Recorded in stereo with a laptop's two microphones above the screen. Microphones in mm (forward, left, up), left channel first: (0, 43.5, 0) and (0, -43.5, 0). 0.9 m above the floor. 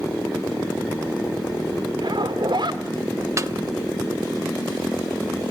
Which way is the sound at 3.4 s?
35° right (ahead or behind).